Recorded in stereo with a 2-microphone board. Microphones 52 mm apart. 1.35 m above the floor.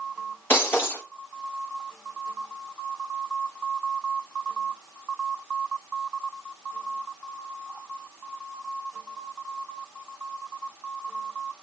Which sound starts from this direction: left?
Breaking glass, at 0.5 s.